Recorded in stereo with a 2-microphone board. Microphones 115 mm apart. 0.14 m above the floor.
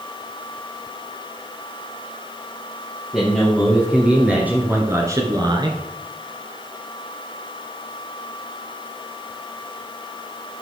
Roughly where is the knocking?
I don't hear knocking.